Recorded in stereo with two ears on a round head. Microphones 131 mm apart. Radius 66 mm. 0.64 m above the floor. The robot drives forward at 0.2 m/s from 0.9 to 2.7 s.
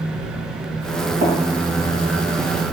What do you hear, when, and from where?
1.2 s tapping: 50° right (ahead or behind), 1.1 m